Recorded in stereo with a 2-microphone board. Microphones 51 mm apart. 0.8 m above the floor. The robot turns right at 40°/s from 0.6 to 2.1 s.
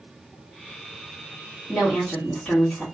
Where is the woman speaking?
15° left (ahead or behind), 1.6 m; by 2.9 s 25° left (ahead or behind), 1.6 m.